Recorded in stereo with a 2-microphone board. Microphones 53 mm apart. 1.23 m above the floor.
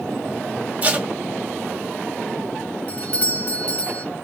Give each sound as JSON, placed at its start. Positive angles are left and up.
{"t": 0.8, "sound": "tape being pulled", "side_deg": -30, "distance_m": 1.1}
{"t": 2.9, "sound": "a doorbell", "side_deg": 25, "distance_m": 1.0}